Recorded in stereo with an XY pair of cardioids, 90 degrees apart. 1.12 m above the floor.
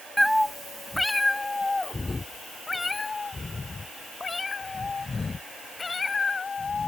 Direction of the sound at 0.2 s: Straight ahead.